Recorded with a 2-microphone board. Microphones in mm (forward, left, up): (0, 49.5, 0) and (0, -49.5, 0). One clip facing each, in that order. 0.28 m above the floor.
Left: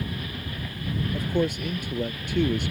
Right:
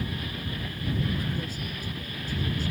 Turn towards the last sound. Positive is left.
turn(degrees=75)  # may be behind; listen again after turning